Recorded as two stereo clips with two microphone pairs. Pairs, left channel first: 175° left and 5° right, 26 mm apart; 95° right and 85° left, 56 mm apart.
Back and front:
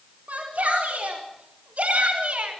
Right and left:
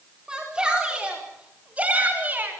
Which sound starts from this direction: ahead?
A shout, at 0.3 s.